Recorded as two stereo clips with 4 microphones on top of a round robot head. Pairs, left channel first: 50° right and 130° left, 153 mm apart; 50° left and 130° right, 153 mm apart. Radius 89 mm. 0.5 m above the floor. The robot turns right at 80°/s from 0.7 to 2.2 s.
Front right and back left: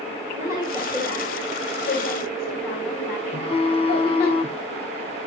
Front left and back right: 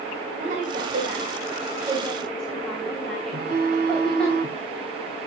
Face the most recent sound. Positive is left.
turn(degrees=-100)